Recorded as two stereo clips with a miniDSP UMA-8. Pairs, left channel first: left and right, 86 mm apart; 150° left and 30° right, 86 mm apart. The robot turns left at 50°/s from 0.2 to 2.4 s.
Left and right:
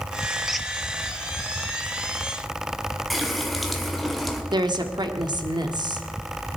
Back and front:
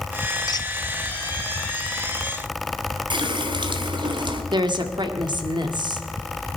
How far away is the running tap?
About 1.9 m.